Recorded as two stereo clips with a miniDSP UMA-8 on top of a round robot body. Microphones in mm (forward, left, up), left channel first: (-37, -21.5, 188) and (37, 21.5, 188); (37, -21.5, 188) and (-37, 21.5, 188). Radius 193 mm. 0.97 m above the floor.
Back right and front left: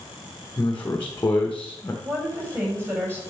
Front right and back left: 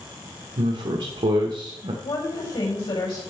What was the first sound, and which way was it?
A man speaking, 145° left.